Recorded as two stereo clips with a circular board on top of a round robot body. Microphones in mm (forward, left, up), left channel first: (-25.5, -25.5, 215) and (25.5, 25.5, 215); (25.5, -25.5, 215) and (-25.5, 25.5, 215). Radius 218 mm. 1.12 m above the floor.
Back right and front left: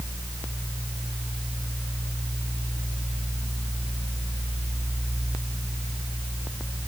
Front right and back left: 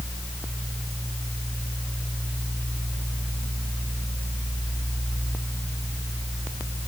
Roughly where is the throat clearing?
I don't hear throat clearing.